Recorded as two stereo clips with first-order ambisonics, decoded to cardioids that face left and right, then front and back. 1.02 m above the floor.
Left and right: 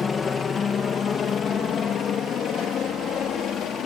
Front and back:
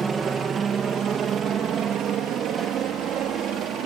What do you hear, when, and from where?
0.0 s a helicopter: 135° left; by 3.9 s 140° left